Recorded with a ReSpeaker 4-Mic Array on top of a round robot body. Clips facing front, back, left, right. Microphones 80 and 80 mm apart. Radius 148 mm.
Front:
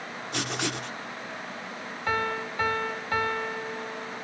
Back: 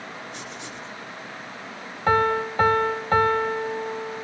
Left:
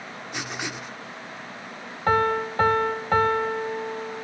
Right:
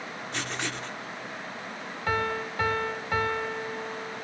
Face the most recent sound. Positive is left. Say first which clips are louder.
# back 8 dB, left 7 dB
turn(degrees=135)